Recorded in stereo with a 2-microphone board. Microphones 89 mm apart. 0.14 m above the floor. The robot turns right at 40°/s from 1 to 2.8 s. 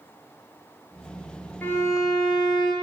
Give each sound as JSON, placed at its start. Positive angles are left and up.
{"t": 1.6, "sound": "a violin", "azimuth_deg": 25, "distance_m": 0.6}